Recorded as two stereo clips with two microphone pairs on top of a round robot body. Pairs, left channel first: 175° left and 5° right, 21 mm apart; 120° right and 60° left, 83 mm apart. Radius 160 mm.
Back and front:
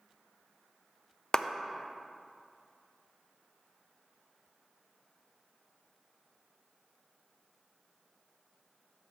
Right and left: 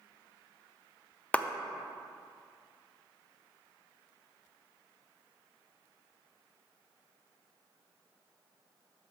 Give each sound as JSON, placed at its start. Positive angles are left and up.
{"t": 1.3, "sound": "a clap", "azimuth_deg": -170, "distance_m": 0.6}